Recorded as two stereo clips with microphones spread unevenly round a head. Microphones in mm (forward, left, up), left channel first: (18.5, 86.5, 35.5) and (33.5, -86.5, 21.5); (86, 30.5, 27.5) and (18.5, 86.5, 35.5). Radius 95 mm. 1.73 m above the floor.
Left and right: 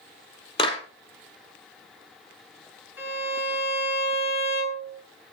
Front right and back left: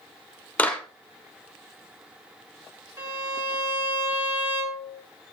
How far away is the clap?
About 5 m.